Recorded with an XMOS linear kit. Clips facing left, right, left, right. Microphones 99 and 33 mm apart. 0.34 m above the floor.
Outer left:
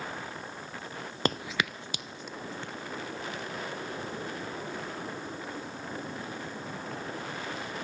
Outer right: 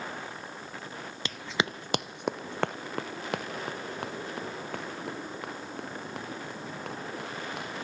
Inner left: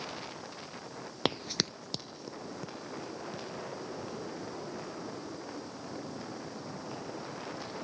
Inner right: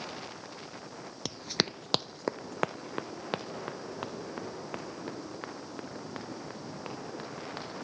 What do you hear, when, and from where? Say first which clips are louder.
1.2 s running footsteps: outer left 1 dB, even; 50° left (ahead or behind), 0.5 m; by 7.8 s 75° right (ahead or behind), 10 m